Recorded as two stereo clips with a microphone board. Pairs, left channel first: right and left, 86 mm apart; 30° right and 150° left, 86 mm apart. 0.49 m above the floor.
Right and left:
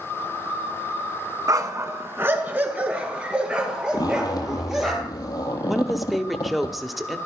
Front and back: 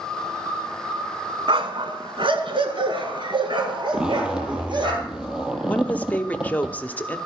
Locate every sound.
1.5 s a dog barking: 135° left, 1.3 m; by 4.9 s 175° left, 4 m
3.9 s a zipper: 130° right, 2 m
5.7 s a woman speaking: straight ahead, 0.9 m